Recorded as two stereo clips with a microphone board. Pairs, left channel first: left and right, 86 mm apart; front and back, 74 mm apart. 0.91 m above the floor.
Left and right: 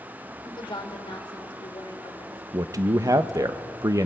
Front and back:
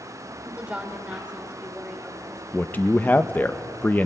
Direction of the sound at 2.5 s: 55° right.